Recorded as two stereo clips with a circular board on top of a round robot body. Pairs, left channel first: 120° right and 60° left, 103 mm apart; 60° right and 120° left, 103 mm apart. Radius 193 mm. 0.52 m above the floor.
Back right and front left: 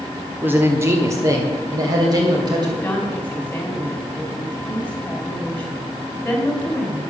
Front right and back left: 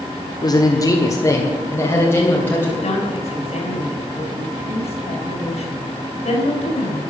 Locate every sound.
0.4 s a man speaking: 10° right, 1.5 m; by 2.7 s 10° left, 3.5 m
2.8 s a woman speaking: 45° right, 4.5 m